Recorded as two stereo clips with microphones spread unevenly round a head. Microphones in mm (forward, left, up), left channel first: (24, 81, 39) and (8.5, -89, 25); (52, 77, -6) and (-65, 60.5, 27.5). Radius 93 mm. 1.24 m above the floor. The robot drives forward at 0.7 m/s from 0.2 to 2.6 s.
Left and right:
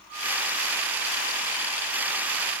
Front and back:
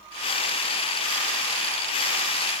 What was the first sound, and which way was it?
Only background noise.